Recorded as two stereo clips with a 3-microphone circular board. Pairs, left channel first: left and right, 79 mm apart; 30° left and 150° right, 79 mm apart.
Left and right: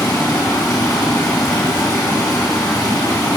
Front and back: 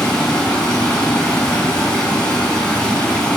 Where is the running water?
105° left, 2.0 m.